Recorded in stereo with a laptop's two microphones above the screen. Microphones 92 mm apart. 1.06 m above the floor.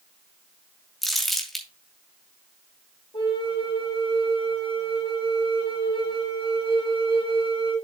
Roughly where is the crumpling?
Centre.